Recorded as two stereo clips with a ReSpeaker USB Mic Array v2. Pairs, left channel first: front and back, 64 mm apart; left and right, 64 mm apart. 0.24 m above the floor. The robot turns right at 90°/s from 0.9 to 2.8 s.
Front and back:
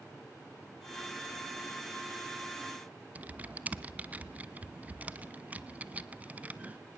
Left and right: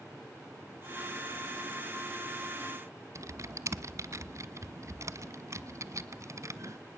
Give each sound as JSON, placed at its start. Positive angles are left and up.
{"t": 3.1, "sound": "typing on a keyboard", "azimuth_deg": -120, "distance_m": 1.0}